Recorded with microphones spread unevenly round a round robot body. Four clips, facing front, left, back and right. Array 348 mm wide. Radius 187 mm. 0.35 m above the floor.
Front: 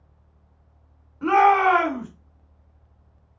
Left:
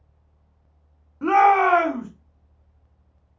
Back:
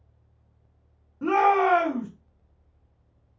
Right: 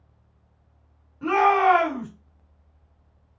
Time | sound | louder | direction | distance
1.2 | a shout | left 3 dB, front 4 dB | 65° left | 1.6 m